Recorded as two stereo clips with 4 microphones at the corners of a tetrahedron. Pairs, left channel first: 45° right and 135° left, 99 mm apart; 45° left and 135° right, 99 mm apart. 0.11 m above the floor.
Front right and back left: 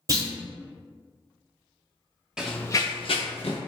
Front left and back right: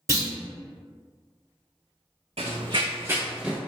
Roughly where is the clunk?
Behind.